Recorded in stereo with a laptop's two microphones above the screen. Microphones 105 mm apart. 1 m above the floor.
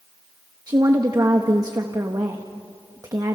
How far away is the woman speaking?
About 1.1 m.